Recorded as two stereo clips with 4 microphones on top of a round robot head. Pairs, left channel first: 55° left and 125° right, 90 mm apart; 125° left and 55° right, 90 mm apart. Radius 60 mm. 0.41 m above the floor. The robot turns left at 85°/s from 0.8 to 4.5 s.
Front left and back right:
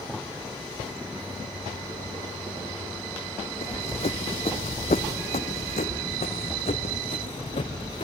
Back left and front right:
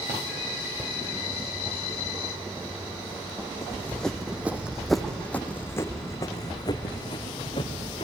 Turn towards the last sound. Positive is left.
turn(degrees=85)